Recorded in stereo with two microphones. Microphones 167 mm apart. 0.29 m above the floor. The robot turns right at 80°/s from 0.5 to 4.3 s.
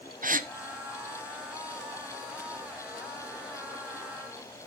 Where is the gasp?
55° right (ahead or behind), 0.9 m.